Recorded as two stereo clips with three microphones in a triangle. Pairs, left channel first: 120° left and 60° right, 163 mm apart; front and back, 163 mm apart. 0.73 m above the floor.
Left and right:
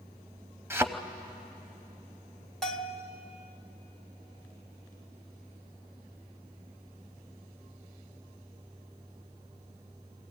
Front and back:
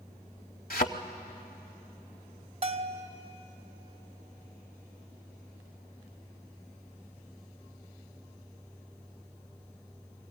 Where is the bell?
155° right, 1.1 m.